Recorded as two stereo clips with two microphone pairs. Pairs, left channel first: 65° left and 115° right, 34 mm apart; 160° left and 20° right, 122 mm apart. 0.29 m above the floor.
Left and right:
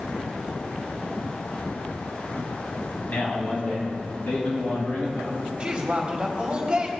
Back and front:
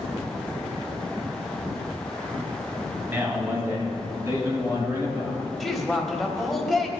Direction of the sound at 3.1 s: 50° left.